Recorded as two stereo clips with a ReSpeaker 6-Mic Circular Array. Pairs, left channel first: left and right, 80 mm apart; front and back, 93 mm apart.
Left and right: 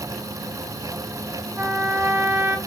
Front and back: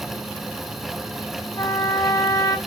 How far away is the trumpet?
About 1.0 m.